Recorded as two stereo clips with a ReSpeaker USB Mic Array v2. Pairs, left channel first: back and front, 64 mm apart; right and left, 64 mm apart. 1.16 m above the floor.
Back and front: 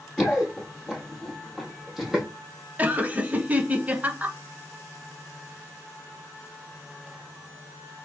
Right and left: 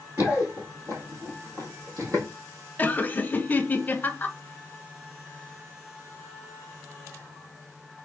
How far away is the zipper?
I don't hear a zipper.